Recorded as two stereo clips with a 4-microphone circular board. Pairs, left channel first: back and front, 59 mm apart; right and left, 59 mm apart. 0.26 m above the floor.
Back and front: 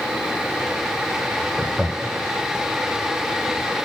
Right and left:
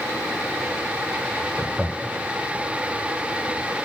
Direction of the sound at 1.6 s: 50° left.